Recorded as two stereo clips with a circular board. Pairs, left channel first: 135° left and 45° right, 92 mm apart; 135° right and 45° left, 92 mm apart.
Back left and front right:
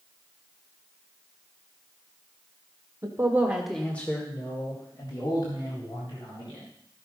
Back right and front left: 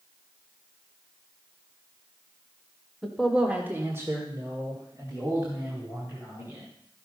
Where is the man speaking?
45° right, 1.5 m; by 6.7 s 105° left, 5 m.